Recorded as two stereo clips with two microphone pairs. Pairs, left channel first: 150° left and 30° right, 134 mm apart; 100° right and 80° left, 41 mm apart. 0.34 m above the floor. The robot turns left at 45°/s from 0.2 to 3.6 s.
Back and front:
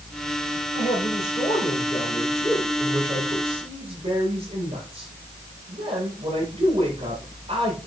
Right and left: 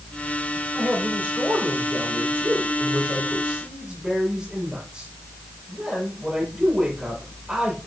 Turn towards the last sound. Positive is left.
turn(degrees=10)